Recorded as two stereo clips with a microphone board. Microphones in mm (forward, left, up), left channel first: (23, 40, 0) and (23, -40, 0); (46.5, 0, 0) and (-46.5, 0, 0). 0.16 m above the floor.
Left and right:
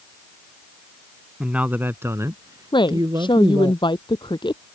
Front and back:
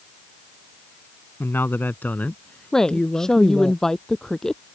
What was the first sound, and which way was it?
A man speaking, 25° right.